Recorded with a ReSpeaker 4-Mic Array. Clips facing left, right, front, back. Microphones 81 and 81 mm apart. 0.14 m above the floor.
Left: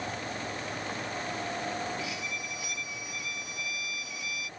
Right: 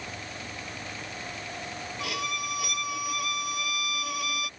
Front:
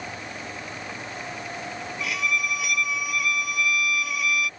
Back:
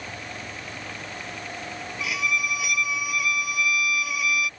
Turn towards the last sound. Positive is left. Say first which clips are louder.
# right 4 dB, even
turn(degrees=-95)